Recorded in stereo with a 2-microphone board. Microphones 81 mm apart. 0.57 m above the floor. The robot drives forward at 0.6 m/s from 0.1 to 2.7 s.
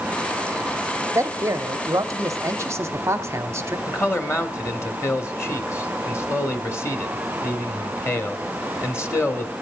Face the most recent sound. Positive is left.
turn(degrees=35)  # may be behind; listen again after turning